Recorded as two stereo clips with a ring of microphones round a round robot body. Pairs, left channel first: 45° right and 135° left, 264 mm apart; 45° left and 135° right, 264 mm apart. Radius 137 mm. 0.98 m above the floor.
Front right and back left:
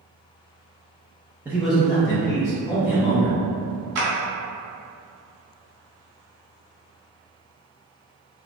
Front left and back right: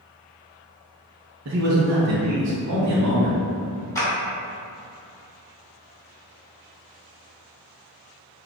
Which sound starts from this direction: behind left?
A clap, at 4.0 s.